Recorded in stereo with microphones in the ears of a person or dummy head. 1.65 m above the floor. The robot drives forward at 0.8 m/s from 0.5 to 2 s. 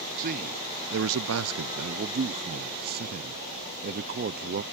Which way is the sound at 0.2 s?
45° right (ahead or behind).